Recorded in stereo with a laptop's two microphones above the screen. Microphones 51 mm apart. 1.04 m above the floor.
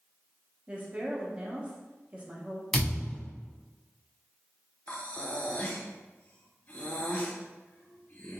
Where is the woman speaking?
25° right (ahead or behind), 0.6 m.